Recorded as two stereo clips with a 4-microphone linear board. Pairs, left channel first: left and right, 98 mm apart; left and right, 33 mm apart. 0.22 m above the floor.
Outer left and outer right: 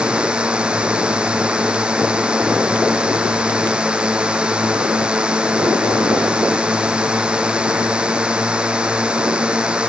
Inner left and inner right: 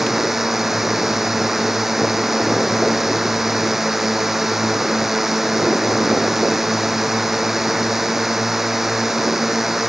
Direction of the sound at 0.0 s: 10° right (ahead or behind).